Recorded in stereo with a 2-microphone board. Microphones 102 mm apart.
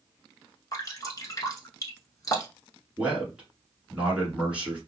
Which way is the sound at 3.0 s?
10° right (ahead or behind).